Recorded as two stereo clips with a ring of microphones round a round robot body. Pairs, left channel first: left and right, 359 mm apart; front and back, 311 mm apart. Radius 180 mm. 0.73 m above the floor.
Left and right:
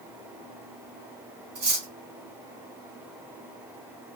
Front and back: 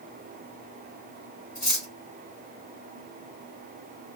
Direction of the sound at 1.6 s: 45° right.